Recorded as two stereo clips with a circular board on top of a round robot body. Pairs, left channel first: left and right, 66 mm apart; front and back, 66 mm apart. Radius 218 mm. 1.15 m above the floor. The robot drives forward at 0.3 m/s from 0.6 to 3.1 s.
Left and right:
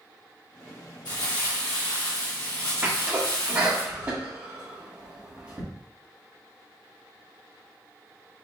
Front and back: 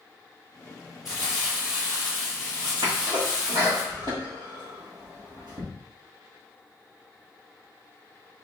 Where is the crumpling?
95° left, 2 m; by 3.8 s 115° left, 2.5 m.